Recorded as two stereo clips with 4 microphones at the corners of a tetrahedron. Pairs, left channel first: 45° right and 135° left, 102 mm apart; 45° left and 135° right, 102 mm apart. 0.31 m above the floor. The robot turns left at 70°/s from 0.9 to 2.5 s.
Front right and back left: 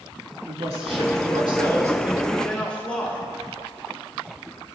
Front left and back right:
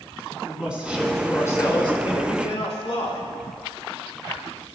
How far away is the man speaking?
About 3.5 m.